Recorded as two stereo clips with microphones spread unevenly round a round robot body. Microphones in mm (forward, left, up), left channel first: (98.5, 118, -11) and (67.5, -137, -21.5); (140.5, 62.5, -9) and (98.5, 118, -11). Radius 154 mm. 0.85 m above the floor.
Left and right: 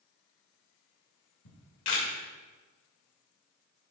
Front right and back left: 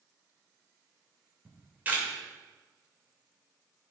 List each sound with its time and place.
1.4 s a camera shutter: 60° left, 2.5 m